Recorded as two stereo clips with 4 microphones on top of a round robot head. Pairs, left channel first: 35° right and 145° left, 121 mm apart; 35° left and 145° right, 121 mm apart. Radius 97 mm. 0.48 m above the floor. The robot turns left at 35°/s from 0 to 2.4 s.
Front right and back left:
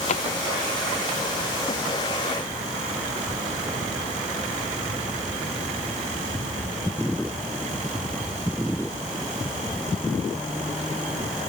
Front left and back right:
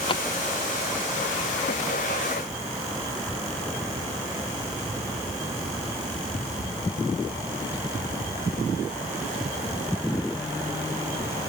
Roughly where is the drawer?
Ahead.